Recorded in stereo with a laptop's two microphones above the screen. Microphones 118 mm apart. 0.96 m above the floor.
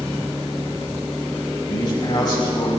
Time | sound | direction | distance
1.7 | a man speaking | 40° left (ahead or behind) | 5 m